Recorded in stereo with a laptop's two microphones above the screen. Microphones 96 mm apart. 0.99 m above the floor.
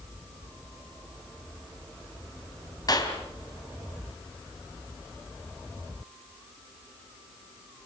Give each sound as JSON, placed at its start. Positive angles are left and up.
{"t": 2.9, "sound": "a clap", "side_deg": 40, "distance_m": 5.0}